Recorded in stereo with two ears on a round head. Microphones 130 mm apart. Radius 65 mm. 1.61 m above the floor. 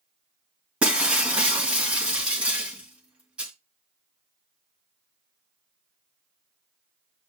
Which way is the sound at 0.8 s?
5° right (ahead or behind).